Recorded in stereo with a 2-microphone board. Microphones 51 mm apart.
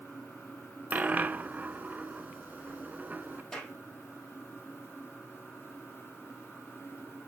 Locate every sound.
0.9 s a dropped coin: 30° right (ahead or behind), 0.6 m
3.5 s a clap: 10° left (ahead or behind), 3.5 m